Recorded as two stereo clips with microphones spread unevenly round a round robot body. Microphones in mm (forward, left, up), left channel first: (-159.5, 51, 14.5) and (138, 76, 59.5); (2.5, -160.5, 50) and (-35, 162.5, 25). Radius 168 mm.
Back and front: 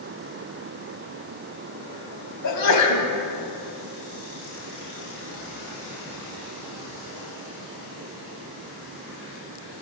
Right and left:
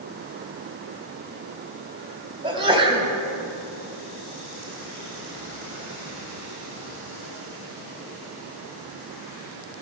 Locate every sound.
2.4 s a sneeze: 170° left, 3 m